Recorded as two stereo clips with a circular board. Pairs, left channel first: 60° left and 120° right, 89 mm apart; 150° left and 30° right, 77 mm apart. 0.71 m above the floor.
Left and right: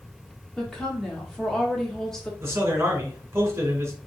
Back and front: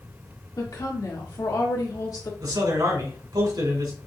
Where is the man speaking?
55° right, 2.5 m.